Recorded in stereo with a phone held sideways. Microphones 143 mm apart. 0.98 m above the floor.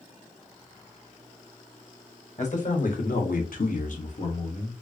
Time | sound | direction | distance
2.4 | a man speaking | 55° left (ahead or behind) | 1.4 m